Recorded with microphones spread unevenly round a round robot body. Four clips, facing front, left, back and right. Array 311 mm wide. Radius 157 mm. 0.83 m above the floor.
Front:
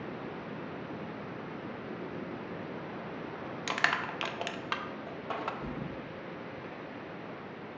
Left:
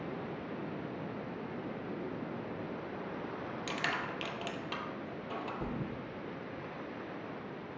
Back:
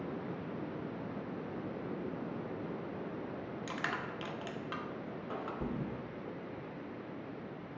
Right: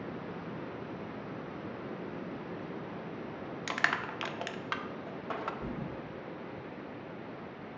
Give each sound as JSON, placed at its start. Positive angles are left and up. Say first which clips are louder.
{"t": 3.7, "sound": "crushing", "louder": "right 5 dB, front 8 dB", "azimuth_deg": -25, "distance_m": 0.5}
{"t": 5.6, "sound": "a thud", "louder": "even, even", "azimuth_deg": 145, "distance_m": 1.0}